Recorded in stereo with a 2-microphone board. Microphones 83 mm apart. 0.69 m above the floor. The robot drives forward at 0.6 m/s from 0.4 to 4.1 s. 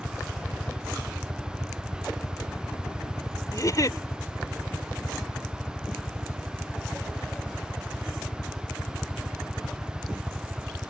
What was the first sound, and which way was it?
A helicopter, 30° left (ahead or behind).